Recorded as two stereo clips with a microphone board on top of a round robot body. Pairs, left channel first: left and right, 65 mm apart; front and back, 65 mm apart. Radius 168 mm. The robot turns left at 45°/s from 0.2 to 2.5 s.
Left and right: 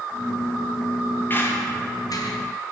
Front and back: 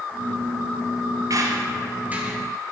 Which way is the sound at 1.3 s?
150° left.